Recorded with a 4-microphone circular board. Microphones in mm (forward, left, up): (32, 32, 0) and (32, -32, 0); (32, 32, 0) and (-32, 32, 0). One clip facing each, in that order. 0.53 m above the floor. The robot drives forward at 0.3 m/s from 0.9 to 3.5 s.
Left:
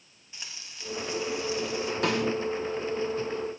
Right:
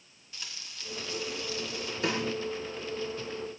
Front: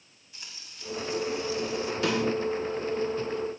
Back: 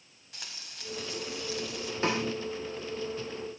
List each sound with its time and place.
0.3 s frying: 160° left, 3.5 m
2.0 s a snare drum: 120° left, 4 m